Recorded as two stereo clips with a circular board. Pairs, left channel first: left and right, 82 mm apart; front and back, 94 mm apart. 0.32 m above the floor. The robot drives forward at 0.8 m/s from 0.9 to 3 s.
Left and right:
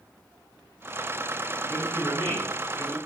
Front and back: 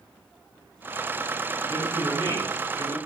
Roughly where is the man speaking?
Ahead left.